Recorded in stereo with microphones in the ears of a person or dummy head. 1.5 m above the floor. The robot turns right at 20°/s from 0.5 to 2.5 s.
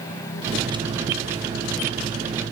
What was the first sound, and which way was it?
Only background noise.